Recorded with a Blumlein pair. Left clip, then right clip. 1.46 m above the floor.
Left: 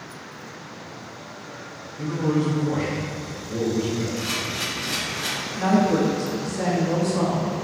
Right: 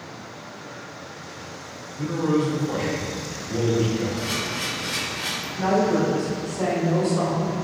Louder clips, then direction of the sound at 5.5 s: Even; 10° left.